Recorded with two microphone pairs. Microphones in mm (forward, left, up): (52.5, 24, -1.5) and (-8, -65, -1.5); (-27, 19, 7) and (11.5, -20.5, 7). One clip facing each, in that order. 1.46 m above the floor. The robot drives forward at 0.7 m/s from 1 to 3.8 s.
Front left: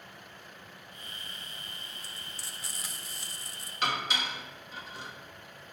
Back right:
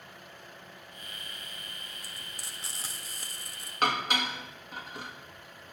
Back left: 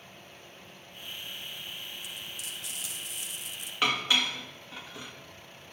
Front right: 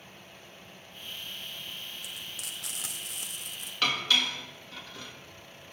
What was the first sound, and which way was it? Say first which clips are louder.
Frying: even, even; 45° right.